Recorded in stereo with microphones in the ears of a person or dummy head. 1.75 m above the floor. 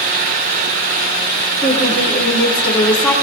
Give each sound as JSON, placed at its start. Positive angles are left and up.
{"t": 1.6, "sound": "a woman speaking", "side_deg": 15, "distance_m": 4.5}